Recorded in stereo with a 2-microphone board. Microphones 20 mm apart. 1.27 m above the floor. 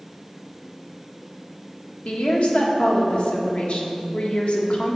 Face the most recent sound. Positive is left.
turn(degrees=65)  # may be behind; listen again after turning